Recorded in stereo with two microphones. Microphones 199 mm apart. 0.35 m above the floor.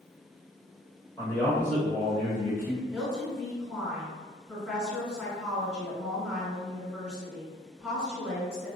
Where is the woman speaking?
Centre (ahead or behind), 1.9 m.